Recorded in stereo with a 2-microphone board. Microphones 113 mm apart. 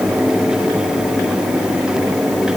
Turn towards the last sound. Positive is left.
No sound to turn to.